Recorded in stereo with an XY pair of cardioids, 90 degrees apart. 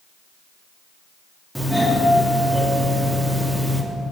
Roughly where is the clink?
I don't hear a clink.